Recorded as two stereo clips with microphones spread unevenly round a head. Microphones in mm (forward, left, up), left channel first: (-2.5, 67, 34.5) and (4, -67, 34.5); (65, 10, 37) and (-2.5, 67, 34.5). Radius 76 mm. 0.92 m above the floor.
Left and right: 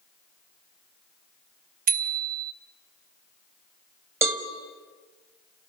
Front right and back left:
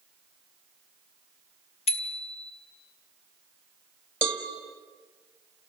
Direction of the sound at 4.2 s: 155° right.